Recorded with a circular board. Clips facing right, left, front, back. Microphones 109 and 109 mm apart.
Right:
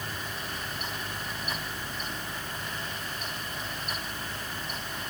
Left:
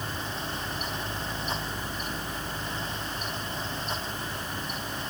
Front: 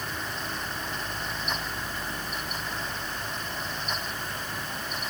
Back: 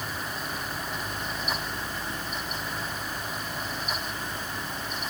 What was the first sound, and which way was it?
Only background noise.